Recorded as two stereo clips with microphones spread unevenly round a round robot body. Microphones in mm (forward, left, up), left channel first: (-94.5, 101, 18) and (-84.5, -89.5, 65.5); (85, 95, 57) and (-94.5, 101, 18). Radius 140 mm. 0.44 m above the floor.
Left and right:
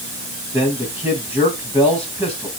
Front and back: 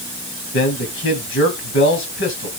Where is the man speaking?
5° right, 3 m.